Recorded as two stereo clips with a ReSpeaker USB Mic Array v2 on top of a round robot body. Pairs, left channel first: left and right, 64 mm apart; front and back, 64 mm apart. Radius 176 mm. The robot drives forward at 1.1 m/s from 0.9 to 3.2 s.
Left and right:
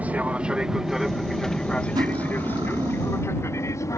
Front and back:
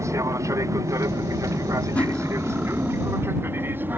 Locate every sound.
0.0 s an aircraft: 155° right; by 4.0 s 125° left
1.9 s cutlery clinking: 70° right; by 3.2 s 125° right